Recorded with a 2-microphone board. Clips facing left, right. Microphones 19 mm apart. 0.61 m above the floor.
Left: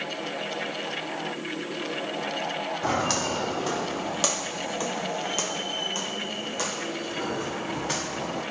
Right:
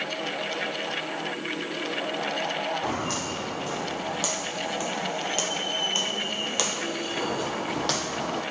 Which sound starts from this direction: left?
Footsteps, at 2.8 s.